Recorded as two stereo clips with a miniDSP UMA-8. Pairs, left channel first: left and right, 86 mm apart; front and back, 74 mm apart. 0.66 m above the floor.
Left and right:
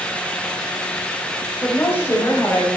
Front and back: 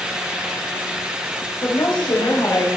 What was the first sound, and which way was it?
A woman speaking, 20° left.